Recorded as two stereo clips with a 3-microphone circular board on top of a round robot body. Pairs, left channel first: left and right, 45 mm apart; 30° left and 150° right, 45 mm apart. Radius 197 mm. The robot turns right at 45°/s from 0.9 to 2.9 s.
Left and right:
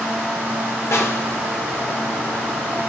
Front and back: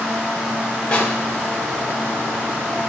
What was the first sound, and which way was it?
A snare drum, 95° left.